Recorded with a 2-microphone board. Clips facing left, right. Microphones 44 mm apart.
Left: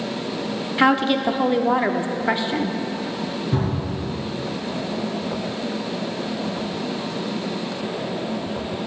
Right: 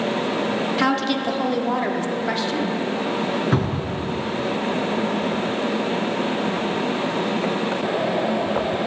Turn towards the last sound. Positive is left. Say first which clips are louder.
# right 2 dB
turn(degrees=-80)